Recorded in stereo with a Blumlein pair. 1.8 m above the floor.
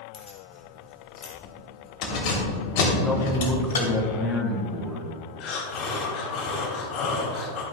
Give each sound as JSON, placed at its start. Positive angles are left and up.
{"t": 0.1, "sound": "keys jangling", "azimuth_deg": 10, "distance_m": 3.5}
{"t": 3.0, "sound": "a man speaking", "azimuth_deg": 5, "distance_m": 2.5}
{"t": 5.4, "sound": "breathing", "azimuth_deg": 35, "distance_m": 3.5}